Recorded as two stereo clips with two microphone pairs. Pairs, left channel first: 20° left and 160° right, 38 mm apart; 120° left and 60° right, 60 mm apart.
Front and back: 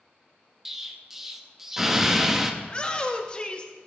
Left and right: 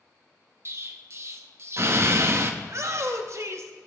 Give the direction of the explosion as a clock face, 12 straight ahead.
3 o'clock.